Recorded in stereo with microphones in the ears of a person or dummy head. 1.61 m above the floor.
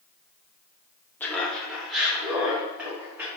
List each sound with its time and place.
1.2 s laughter: 5° left (ahead or behind), 0.7 m; by 3.3 s 10° right (ahead or behind), 1.8 m